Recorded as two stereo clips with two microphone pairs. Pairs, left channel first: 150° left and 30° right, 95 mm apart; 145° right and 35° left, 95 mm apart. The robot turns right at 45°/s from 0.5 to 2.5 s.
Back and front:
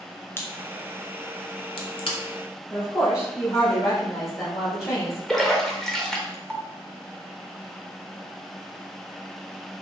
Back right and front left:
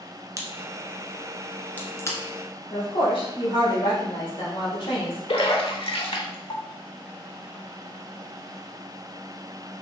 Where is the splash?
125° right, 0.7 m.